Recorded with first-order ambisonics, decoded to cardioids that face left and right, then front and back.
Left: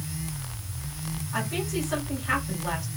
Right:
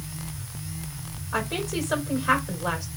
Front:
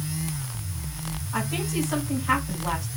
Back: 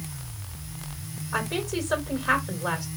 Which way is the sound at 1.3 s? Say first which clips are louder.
Right 2 dB, back 1 dB; 135° right.